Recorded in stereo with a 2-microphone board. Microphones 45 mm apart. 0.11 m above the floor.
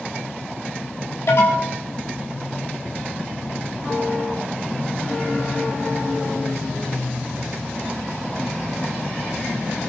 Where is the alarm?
65° left (ahead or behind), 7.5 m.